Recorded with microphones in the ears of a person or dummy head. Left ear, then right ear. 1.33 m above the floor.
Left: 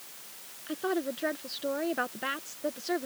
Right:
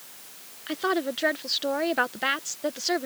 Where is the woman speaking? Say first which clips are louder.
Right 5 dB; 30° right (ahead or behind).